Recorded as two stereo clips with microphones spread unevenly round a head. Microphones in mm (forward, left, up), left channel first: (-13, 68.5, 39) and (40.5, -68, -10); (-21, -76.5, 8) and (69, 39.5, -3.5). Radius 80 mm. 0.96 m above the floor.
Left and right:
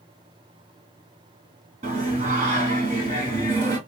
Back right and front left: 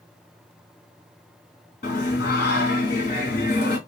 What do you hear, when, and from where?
1.8 s singing: 120° right, 2 m